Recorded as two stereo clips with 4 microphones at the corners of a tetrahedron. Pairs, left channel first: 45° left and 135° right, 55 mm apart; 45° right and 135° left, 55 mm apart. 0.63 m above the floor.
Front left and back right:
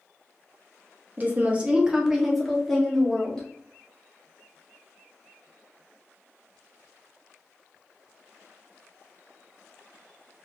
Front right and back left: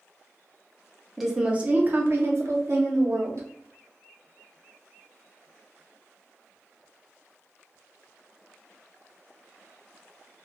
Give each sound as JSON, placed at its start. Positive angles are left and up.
{"t": 1.2, "sound": "a woman speaking", "azimuth_deg": -140, "distance_m": 0.6}